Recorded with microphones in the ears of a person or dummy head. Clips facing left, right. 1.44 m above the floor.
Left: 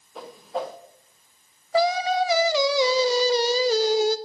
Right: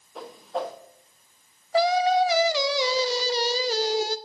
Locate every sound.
0.1 s a whoosh: 5° right (ahead or behind), 1.0 m
1.7 s singing: 65° left (ahead or behind), 0.6 m